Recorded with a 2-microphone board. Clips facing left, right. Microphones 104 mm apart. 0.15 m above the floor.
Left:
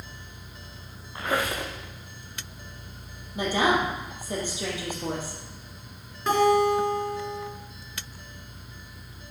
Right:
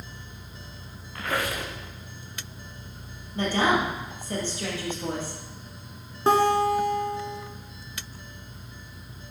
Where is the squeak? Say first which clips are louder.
Left 2 dB; 20° left (ahead or behind), 3 m.